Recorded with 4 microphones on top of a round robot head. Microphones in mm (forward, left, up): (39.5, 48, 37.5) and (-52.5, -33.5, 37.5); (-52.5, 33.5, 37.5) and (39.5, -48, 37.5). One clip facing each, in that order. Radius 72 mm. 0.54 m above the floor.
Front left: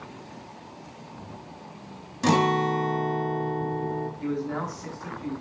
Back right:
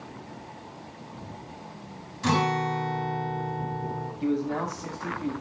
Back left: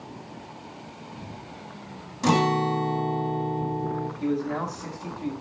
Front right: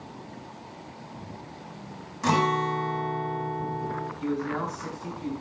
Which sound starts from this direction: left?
A guitar, at 2.2 s.